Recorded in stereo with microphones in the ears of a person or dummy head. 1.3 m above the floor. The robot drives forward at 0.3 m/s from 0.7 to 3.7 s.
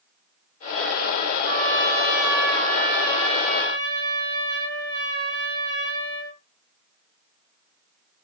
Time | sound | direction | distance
1.4 | a trumpet | 55° right (ahead or behind) | 1.3 m